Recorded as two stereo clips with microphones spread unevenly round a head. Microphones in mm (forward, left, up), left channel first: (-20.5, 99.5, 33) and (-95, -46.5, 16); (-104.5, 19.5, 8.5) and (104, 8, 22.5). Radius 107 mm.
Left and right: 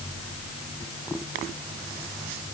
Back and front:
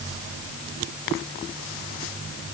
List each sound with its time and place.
Only background noise.